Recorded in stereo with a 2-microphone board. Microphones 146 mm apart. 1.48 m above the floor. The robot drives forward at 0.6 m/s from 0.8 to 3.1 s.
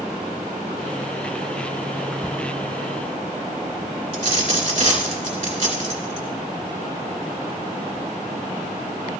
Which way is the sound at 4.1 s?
50° right (ahead or behind).